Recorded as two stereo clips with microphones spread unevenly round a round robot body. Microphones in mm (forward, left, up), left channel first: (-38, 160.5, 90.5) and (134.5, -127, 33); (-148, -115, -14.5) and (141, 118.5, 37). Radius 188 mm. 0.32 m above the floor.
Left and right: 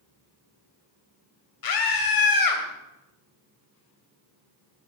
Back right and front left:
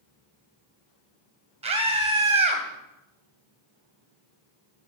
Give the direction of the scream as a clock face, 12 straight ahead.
8 o'clock.